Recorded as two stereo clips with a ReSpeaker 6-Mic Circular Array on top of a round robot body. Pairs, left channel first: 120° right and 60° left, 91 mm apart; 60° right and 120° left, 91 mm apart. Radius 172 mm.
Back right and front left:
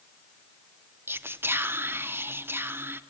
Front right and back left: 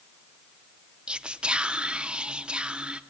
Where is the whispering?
55° left, 0.8 m.